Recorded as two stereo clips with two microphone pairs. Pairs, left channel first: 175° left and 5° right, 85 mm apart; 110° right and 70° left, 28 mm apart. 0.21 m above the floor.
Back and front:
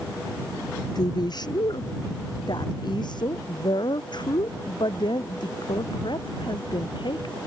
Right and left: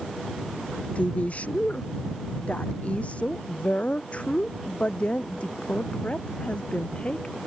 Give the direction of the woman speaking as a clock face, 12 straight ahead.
5 o'clock.